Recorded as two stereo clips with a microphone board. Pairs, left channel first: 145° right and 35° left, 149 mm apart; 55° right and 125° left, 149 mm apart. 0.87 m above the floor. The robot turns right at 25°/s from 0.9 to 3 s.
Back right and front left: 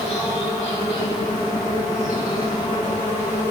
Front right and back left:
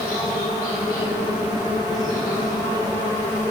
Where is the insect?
170° right, 2 m; by 3.5 s 120° right, 2 m.